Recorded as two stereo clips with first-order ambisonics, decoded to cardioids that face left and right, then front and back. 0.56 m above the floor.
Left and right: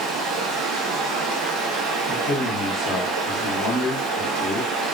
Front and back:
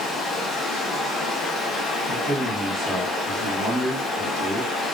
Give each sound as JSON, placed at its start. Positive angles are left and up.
{"t": 0.0, "sound": "running water", "azimuth_deg": -60, "distance_m": 0.8}
{"t": 2.1, "sound": "a man speaking", "azimuth_deg": 100, "distance_m": 0.7}